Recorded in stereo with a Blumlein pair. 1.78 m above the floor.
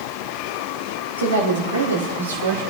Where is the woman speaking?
70° right, 3 m; by 2.6 s 65° right, 4.5 m.